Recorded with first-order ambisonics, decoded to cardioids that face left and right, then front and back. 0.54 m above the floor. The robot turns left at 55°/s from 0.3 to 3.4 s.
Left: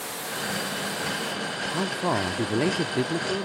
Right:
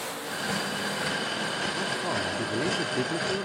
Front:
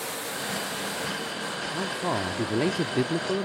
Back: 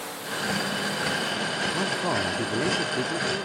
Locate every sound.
1.7 s a man speaking: 105° left; by 3.5 s 15° left